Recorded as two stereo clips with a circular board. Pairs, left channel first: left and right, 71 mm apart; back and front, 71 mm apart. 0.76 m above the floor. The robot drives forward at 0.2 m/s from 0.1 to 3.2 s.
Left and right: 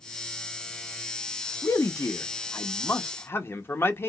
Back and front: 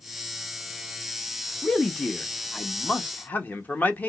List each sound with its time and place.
1.6 s a man speaking: 95° left, 0.7 m; by 4.1 s 125° left, 0.8 m